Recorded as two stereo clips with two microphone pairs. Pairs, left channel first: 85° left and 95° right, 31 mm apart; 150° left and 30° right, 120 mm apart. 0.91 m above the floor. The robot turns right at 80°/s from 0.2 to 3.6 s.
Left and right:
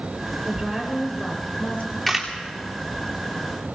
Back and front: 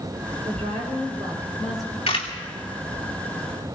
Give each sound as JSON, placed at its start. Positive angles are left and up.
{"t": 0.5, "sound": "a woman speaking", "azimuth_deg": -50, "distance_m": 4.0}
{"t": 2.1, "sound": "a camera shutter", "azimuth_deg": 170, "distance_m": 2.5}